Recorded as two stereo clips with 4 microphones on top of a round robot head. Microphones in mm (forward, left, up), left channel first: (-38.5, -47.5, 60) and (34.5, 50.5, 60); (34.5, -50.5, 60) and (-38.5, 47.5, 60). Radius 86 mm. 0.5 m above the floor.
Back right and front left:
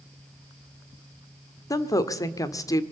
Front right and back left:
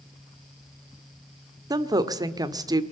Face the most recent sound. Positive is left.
turn(degrees=180)